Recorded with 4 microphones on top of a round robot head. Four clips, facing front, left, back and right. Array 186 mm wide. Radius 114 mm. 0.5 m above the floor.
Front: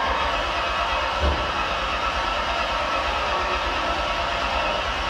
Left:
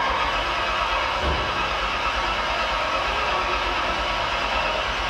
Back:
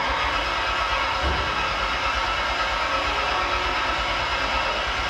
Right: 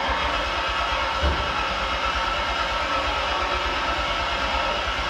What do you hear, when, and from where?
0.0 s an engine running: 15° left, 1.1 m